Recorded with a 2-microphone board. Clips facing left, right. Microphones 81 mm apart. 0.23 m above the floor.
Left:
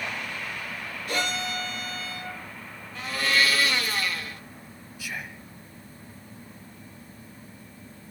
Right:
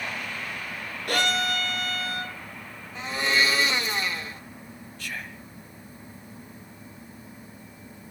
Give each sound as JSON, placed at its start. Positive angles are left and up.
{"t": 1.1, "sound": "a violin", "side_deg": -55, "distance_m": 3.0}
{"t": 3.0, "sound": "a blender", "side_deg": -20, "distance_m": 1.5}
{"t": 5.0, "sound": "whispering", "side_deg": 5, "distance_m": 1.1}